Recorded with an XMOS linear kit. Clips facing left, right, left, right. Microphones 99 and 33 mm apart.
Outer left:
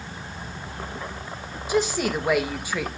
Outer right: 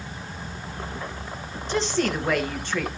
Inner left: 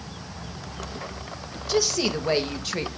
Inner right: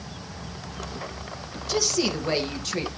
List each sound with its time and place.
1.7 s a woman speaking: 10° left (ahead or behind), 1.5 m